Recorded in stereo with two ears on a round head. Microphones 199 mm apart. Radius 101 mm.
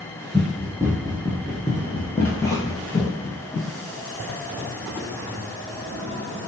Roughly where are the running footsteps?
Centre.